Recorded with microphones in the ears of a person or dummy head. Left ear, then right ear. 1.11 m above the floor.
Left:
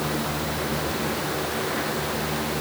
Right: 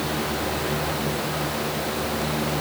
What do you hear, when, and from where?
Only background noise.